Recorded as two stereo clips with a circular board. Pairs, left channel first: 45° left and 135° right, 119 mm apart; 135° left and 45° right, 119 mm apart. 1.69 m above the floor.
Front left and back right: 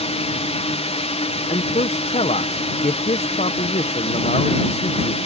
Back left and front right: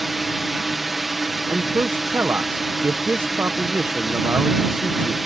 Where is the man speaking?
25° left.